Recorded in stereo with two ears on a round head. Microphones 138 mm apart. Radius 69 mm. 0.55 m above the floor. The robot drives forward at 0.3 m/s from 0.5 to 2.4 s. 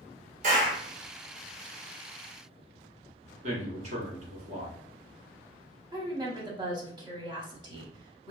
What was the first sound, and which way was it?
A clap, 50° right (ahead or behind).